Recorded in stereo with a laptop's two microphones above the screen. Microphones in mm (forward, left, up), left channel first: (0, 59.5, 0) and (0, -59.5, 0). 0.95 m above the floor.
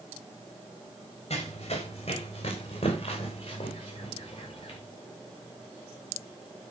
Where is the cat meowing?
No cat meowing in this recording.